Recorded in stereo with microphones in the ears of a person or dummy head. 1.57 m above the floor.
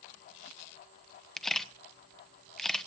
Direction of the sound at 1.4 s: Centre (ahead or behind).